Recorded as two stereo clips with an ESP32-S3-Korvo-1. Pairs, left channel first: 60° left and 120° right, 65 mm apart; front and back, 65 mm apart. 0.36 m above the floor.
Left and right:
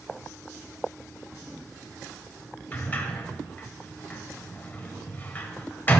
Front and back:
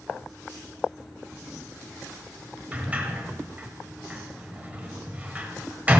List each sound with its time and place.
2.7 s a sliding door: 120° left, 1.4 m